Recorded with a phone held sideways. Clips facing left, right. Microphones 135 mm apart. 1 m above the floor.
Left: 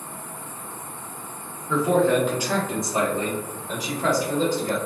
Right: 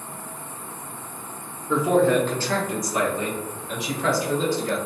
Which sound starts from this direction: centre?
A man speaking, at 1.7 s.